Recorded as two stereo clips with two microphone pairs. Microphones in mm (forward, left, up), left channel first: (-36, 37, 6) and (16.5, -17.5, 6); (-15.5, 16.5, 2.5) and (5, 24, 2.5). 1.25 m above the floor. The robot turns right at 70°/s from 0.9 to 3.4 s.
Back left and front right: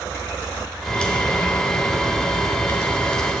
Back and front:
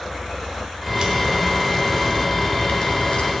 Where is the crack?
50° left, 1.7 m; by 3.3 s 140° right, 1.7 m.